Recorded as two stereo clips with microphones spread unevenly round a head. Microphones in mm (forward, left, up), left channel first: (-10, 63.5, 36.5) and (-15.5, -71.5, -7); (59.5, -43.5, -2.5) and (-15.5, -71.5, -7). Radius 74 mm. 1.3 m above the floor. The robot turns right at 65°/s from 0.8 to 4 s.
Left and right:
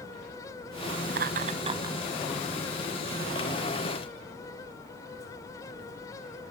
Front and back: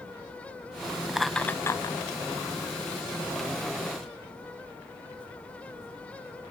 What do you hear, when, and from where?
1.1 s laughter: 75° right, 0.7 m; by 2.0 s 20° right, 0.7 m